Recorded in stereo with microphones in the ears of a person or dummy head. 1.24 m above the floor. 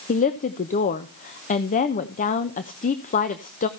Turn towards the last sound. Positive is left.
turn(degrees=45)  # may be behind; listen again after turning